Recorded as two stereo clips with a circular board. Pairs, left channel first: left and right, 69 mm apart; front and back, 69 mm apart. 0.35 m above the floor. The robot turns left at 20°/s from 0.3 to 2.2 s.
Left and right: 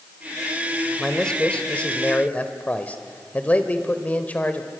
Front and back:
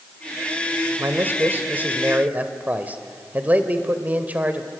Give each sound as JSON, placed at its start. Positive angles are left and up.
{"t": 1.0, "sound": "a man speaking", "azimuth_deg": 160, "distance_m": 1.4}